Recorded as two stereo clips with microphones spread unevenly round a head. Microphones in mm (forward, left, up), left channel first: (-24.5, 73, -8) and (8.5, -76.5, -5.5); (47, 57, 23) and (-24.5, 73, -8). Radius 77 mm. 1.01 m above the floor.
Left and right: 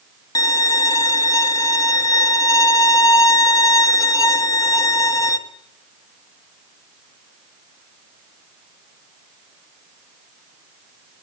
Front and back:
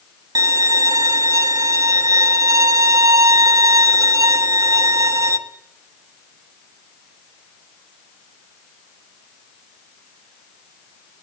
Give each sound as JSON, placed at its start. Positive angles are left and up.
{"t": 0.3, "sound": "a violin", "azimuth_deg": 170, "distance_m": 1.3}